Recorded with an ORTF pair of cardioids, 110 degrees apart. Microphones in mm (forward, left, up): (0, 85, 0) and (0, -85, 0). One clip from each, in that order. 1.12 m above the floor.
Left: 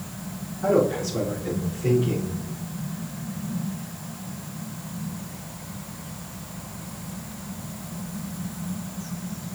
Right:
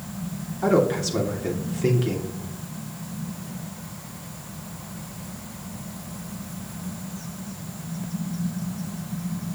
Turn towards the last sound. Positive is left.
turn(degrees=-65)